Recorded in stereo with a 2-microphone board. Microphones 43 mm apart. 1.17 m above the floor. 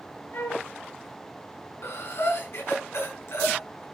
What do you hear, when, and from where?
0.3 s a flute: 65° left (ahead or behind), 1.8 m
1.8 s breathing: 75° left (ahead or behind), 5 m